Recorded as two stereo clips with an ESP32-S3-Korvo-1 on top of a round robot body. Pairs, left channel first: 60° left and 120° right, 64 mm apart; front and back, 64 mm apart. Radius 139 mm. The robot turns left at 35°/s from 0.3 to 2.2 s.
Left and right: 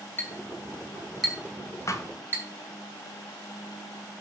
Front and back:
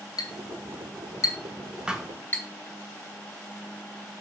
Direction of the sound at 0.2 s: Straight ahead.